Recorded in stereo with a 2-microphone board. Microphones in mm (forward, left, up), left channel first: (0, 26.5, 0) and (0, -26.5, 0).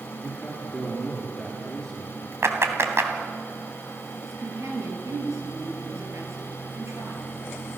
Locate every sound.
0.2 s a man speaking: 5° left (ahead or behind), 4.5 m
2.4 s a clap: 55° right (ahead or behind), 2 m
4.2 s a woman speaking: 70° right (ahead or behind), 5.5 m